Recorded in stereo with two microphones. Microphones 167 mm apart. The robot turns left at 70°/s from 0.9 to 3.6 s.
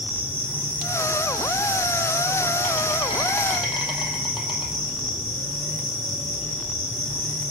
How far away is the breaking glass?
No breaking glass in this recording.